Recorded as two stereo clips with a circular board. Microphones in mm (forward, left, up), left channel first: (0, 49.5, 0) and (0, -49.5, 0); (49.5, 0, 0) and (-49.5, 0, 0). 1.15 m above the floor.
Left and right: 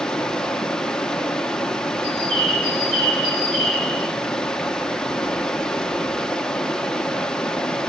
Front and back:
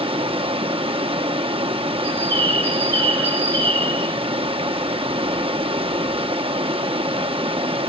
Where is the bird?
65° right, 2.5 m.